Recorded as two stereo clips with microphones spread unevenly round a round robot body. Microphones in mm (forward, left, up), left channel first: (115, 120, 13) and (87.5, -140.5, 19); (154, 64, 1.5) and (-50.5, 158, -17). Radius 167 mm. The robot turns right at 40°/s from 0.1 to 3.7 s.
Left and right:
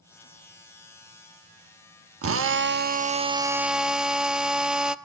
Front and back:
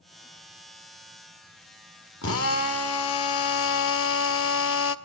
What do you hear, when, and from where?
2.2 s a drill: 70° right, 1.0 m; by 5.0 s 10° right, 1.0 m